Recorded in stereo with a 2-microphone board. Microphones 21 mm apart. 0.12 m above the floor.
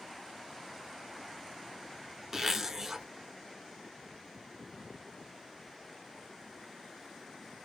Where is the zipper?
15° right (ahead or behind), 0.5 m.